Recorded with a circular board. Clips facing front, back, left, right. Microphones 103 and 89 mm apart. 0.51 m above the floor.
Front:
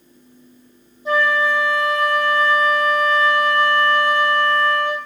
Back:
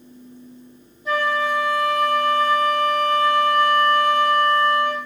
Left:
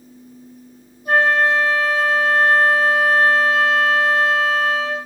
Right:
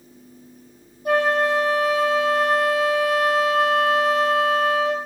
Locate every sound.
1.1 s a flute: 65° right, 1.6 m